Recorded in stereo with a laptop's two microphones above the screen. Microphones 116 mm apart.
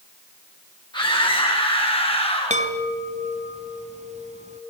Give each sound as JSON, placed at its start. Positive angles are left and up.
{"t": 0.9, "sound": "a scream", "side_deg": 40, "distance_m": 7.0}
{"t": 2.5, "sound": "a chime", "side_deg": -80, "distance_m": 3.0}